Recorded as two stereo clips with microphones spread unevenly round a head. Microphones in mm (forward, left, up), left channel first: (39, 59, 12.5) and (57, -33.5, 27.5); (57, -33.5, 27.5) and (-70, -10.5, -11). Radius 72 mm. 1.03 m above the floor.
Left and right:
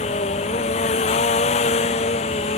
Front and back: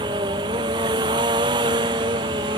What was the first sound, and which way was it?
A machine running, 110° left.